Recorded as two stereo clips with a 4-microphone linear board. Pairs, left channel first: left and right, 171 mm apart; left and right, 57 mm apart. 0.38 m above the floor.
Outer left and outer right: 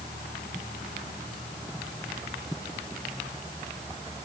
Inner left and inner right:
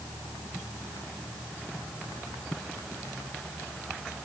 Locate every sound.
Only background noise.